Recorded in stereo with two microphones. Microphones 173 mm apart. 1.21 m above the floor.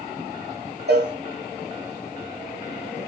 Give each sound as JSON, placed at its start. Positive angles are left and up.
{"t": 0.9, "sound": "a cowbell", "side_deg": -80, "distance_m": 8.0}